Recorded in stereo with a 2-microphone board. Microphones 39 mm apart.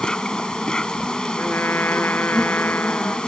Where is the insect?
20° left (ahead or behind).